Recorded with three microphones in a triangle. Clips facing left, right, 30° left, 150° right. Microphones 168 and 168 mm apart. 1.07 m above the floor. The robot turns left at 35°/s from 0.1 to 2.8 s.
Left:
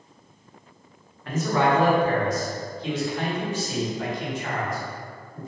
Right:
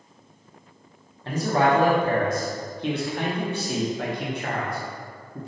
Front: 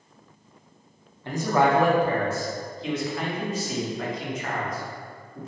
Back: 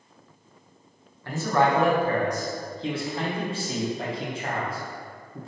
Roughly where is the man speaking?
Ahead right.